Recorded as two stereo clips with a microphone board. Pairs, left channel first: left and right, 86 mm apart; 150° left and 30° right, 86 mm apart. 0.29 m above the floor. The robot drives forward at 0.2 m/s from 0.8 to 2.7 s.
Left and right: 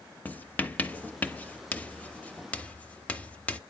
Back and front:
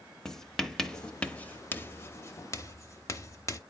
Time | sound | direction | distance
0.2 | writing | 75° left | 0.5 m